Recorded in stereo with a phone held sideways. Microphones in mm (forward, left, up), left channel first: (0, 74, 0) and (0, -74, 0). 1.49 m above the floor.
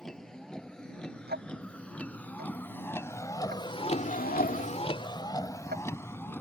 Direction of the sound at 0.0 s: 5° left (ahead or behind).